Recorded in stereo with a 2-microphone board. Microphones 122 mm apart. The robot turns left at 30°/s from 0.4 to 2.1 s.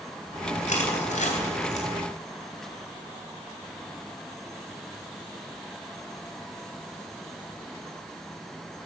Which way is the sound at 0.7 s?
75° left (ahead or behind).